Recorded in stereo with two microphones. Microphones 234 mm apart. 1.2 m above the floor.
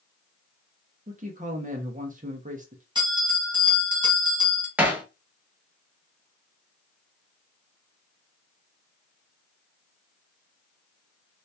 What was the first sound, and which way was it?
A man speaking, 35° right (ahead or behind).